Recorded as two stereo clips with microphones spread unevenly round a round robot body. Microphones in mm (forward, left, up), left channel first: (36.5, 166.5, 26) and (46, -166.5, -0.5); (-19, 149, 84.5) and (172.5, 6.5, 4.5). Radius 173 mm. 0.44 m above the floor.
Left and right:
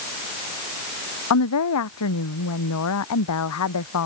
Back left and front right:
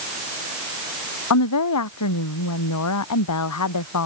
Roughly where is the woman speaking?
Behind left.